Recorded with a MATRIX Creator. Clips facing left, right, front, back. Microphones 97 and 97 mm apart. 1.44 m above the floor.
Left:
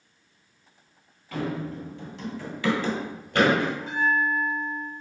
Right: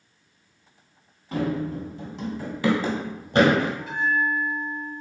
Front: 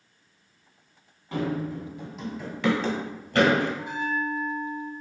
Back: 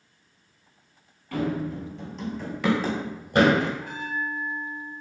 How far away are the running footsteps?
About 1.6 m.